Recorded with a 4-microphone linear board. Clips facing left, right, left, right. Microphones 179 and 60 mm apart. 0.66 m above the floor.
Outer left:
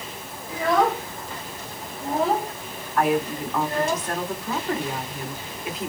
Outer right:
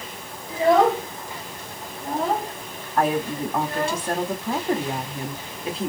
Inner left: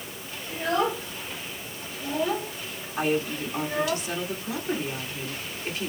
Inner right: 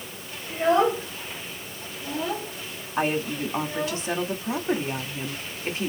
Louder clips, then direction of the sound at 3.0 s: Even, inner right 1 dB; 30° right (ahead or behind).